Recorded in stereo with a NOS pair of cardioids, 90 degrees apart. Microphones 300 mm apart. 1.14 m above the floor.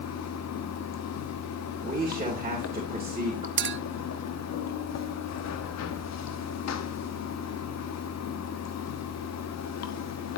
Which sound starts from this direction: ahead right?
A clink, at 3.6 s.